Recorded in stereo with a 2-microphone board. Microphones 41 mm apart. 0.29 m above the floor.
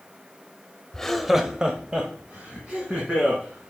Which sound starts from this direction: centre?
Laughter, at 0.9 s.